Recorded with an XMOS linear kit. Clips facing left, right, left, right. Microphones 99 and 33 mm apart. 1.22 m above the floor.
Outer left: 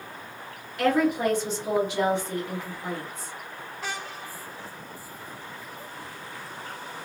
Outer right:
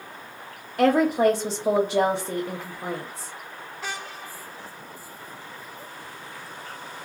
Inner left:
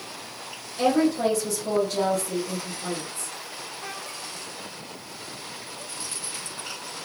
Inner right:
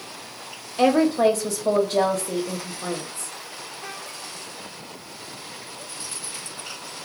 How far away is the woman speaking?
About 0.6 m.